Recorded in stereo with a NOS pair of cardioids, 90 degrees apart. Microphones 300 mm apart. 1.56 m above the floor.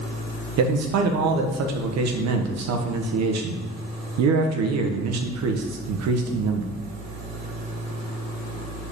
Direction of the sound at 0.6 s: 70° right.